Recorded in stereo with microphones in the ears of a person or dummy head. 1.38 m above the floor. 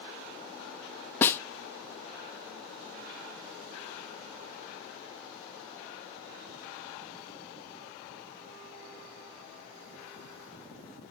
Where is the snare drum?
15° left (ahead or behind), 0.6 m.